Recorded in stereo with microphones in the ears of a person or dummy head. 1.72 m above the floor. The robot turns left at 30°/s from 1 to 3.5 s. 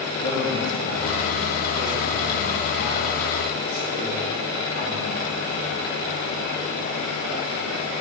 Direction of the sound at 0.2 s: 50° left (ahead or behind).